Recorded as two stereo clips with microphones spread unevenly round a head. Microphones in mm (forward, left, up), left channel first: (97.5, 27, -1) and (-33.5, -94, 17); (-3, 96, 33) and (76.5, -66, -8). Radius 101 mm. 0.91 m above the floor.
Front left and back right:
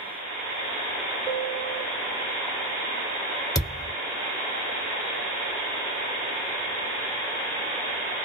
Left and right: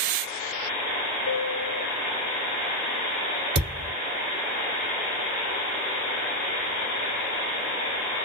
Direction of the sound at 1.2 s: 140° left.